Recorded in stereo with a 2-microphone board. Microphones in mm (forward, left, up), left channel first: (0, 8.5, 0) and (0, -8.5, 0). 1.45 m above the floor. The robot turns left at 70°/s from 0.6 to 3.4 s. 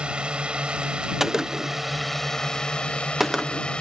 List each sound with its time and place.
0.0 s a drone: 75° right (ahead or behind); by 3.8 s 75° left (ahead or behind)
1.2 s a gunshot: 25° right (ahead or behind); by 3.7 s centre (ahead or behind)